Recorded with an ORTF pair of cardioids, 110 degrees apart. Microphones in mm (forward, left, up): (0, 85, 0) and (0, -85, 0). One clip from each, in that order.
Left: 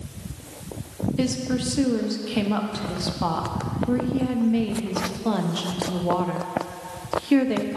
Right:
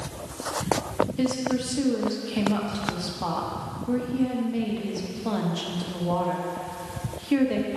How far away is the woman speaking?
About 0.7 m.